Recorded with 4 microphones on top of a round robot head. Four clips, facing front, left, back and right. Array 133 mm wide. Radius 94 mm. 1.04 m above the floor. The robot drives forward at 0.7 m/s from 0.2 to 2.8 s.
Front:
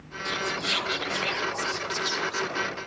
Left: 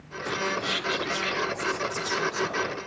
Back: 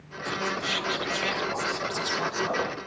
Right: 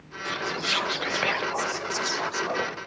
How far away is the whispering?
About 1.3 m.